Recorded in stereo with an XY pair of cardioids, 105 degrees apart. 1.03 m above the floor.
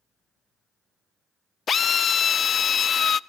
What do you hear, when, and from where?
1.7 s a drill: 45° left, 0.5 m